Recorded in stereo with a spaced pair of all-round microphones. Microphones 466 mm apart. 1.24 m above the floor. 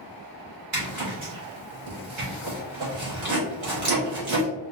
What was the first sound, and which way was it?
A zipper, 80° right.